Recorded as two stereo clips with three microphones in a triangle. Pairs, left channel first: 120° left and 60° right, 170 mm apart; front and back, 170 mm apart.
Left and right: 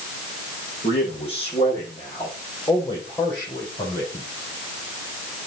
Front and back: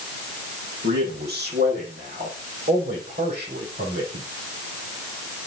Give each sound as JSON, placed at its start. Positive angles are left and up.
{"t": 0.8, "sound": "a man speaking", "azimuth_deg": 170, "distance_m": 7.0}